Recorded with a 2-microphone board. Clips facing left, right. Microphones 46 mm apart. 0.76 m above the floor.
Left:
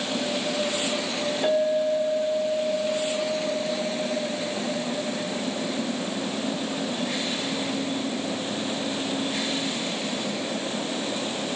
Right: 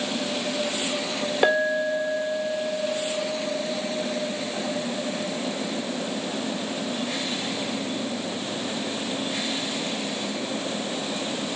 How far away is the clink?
About 1.5 m.